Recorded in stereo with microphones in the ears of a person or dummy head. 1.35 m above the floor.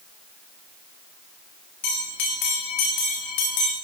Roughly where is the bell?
Left.